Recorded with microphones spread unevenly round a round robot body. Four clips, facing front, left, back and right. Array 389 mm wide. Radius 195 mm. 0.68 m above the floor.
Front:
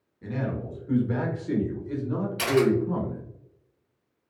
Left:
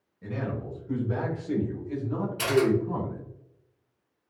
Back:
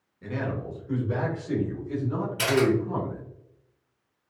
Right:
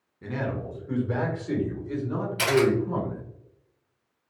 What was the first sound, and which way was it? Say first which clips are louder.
A man speaking: right 2 dB, even; 85° right.